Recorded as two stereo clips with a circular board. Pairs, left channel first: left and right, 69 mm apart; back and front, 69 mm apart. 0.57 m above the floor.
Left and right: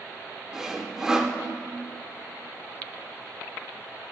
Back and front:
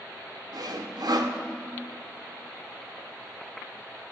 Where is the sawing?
10° right, 0.6 m.